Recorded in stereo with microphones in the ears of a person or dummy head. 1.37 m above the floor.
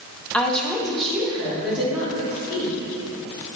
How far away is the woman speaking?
About 1.0 m.